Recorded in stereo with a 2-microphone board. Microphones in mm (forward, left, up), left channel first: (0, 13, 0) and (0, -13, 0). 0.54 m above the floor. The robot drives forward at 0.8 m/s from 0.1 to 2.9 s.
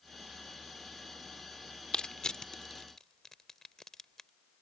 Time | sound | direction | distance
1.9 | crushing | 40° left (ahead or behind) | ?